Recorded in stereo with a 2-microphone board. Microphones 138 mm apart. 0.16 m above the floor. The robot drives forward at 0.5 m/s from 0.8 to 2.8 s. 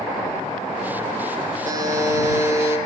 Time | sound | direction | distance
1.6 | a buzzer | 30° right (ahead or behind) | 1.7 m